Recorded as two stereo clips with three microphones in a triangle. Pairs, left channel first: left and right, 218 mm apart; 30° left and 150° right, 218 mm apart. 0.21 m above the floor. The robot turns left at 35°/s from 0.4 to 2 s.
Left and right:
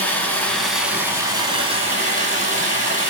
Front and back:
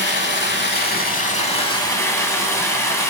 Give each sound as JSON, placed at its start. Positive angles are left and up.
{"t": 0.0, "sound": "running water", "azimuth_deg": 10, "distance_m": 0.8}